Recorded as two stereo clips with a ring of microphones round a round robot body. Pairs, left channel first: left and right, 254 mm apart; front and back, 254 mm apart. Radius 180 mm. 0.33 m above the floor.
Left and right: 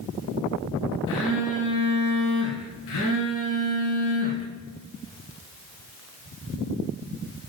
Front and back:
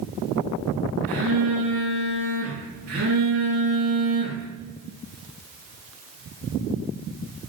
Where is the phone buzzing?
115° left, 1.7 m.